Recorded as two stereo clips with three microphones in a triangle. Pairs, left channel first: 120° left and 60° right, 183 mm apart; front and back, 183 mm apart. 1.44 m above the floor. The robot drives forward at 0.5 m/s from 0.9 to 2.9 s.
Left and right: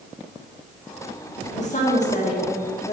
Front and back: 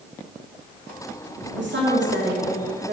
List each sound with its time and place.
1.6 s a woman speaking: 170° left, 1.7 m; by 3.0 s 175° left, 2.5 m